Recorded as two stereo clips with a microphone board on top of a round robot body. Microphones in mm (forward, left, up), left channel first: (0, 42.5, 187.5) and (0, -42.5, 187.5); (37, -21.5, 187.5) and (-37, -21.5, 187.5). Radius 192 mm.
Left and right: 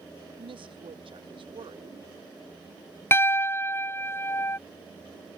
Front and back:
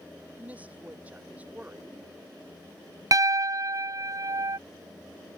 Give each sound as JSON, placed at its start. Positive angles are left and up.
{"t": 0.4, "sound": "a woman speaking", "azimuth_deg": -110}
{"t": 3.1, "sound": "a piano", "azimuth_deg": 150}